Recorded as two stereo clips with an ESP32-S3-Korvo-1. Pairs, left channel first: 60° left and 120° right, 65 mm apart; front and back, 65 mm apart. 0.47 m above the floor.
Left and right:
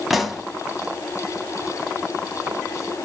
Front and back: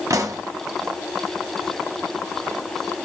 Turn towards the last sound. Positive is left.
turn(degrees=150)